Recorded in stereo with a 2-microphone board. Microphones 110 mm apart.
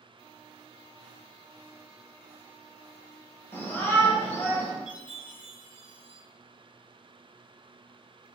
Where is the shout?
20° left (ahead or behind), 0.8 m.